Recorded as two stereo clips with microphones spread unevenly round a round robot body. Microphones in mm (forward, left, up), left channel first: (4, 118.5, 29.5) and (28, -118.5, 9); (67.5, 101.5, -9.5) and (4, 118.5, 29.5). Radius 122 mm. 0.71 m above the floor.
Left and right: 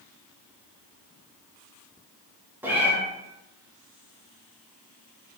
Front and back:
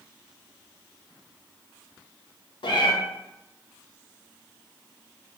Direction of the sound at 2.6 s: Straight ahead.